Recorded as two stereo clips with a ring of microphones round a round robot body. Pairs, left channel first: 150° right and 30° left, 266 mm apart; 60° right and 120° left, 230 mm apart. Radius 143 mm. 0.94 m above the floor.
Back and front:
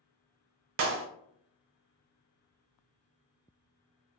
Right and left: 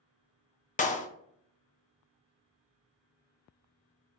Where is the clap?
5° right, 0.6 m.